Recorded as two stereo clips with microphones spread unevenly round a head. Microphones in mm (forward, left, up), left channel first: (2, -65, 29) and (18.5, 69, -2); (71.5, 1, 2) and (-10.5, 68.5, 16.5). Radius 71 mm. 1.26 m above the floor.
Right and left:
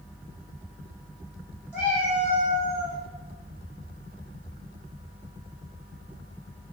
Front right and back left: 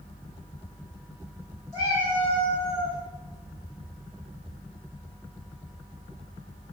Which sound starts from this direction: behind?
A cat meowing, at 1.7 s.